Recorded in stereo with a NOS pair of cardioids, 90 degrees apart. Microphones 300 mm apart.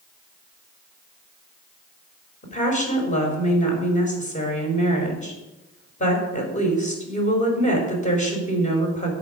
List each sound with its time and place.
2.4 s a woman speaking: 25° left, 5 m